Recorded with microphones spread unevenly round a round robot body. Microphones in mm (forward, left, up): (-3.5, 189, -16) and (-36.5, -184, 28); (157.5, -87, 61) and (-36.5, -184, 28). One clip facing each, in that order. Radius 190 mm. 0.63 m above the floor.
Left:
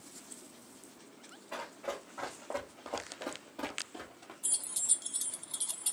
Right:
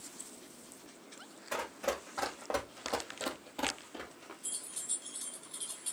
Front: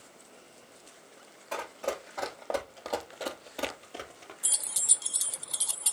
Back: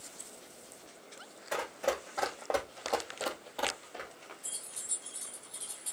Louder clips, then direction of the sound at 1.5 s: Right 5 dB, back 1 dB; 70° right.